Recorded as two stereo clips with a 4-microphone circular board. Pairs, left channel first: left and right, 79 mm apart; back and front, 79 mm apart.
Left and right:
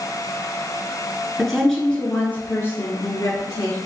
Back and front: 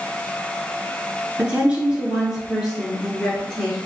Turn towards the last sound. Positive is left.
turn(degrees=95)